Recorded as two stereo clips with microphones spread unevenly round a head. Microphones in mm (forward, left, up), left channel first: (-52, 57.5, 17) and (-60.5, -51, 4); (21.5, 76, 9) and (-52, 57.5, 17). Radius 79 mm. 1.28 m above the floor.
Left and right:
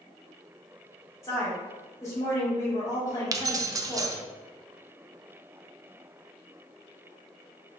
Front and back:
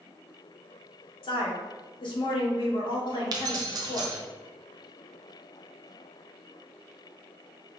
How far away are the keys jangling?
About 0.5 m.